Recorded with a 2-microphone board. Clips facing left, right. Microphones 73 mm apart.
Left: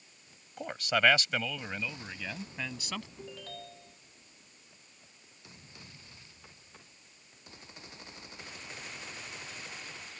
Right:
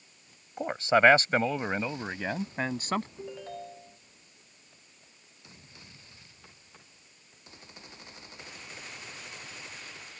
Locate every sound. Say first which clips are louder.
0.6 s a man speaking: right 6 dB; 25° right (ahead or behind); by 3.1 s 40° right (ahead or behind)
3.2 s a ringtone: right 5 dB; 25° right (ahead or behind)